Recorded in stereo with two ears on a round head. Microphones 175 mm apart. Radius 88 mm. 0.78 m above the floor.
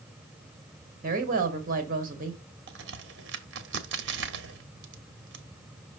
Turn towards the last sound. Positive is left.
turn(degrees=-65)  # may be behind; listen again after turning